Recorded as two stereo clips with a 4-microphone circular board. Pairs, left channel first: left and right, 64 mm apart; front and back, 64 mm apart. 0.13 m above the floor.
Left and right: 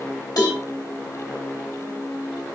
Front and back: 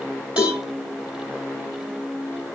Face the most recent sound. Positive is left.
turn(degrees=110)